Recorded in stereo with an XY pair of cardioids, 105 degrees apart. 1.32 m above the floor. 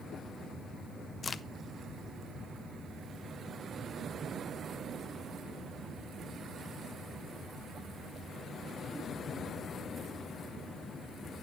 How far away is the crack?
About 0.5 m.